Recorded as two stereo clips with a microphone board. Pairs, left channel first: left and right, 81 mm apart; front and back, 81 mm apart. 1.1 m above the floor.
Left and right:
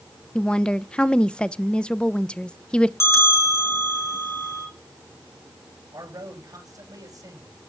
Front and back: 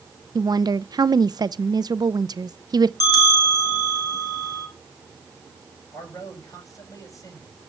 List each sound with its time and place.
0.3 s a woman speaking: 165° left, 0.5 m
3.0 s a bell: 35° left, 3.5 m
5.9 s a man speaking: 50° right, 7 m